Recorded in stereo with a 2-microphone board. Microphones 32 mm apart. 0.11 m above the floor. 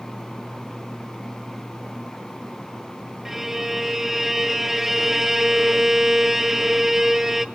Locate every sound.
3.2 s a violin: 10° right (ahead or behind), 0.5 m